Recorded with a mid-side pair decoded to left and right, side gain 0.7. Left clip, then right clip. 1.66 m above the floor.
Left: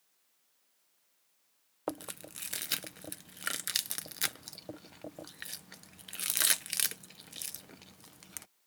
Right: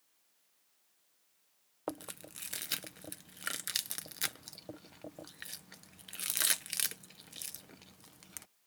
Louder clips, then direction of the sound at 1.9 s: Left 3 dB; 15° left.